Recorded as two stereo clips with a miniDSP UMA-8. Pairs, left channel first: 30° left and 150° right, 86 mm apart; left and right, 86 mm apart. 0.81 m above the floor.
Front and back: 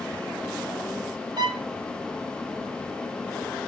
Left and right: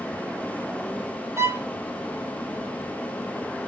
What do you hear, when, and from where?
1.4 s a violin: 140° right, 1.7 m